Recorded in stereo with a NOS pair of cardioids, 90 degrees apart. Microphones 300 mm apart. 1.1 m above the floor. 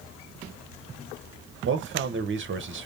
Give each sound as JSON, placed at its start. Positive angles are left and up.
{"t": 1.6, "sound": "a man speaking", "azimuth_deg": -40, "distance_m": 0.9}